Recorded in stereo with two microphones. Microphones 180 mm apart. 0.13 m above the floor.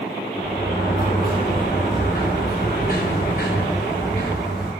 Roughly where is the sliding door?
Left.